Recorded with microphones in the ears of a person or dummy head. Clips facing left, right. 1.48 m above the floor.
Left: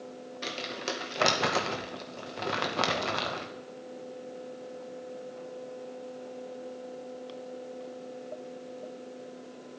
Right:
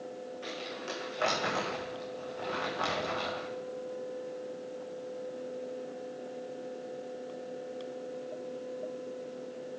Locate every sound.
0.4 s crumpling: 80° left, 1.8 m